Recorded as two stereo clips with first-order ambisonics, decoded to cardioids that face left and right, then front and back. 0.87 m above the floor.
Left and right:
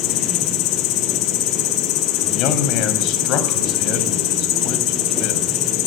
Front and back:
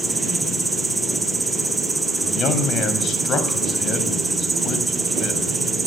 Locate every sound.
0.0 s an insect: 100° left, 2 m
2.2 s a man speaking: 55° left, 5.5 m